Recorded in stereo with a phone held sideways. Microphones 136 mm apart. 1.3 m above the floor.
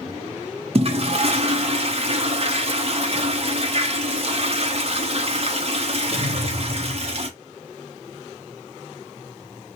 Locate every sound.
0.8 s a toilet flushing: 50° right (ahead or behind), 0.7 m